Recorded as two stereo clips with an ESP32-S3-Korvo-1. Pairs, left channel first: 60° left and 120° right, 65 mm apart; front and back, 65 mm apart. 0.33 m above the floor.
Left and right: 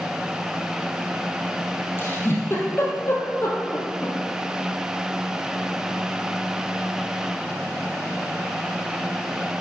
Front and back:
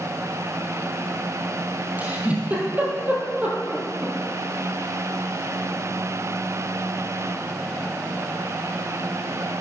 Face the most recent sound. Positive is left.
turn(degrees=115)